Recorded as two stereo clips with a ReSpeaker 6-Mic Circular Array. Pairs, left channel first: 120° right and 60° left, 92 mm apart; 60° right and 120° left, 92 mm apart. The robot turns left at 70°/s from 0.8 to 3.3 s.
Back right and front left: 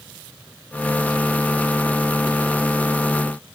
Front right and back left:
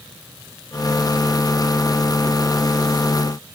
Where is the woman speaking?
No woman speaking in this recording.